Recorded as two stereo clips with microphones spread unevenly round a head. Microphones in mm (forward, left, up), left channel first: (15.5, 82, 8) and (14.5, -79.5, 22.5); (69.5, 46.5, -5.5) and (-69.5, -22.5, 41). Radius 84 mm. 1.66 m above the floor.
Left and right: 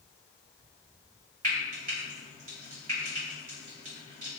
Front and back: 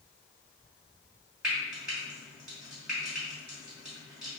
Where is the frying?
95° right, 1.9 m.